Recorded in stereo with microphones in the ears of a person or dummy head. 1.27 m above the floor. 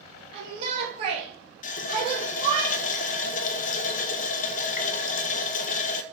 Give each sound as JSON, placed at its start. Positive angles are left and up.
{"t": 0.3, "sound": "a shout", "side_deg": -40, "distance_m": 2.0}
{"t": 1.6, "sound": "a running tap", "side_deg": 45, "distance_m": 0.7}